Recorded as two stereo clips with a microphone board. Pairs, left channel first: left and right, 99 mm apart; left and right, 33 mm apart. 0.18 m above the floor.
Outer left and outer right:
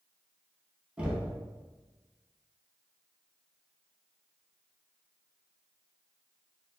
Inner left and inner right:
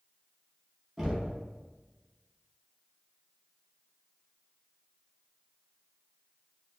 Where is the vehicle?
I don't hear a vehicle.